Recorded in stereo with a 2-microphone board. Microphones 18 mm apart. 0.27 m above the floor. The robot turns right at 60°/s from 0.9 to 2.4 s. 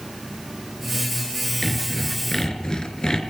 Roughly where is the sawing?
Ahead.